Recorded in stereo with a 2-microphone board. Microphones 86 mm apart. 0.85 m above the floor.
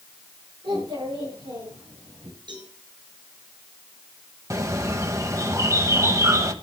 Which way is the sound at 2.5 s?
65° right (ahead or behind).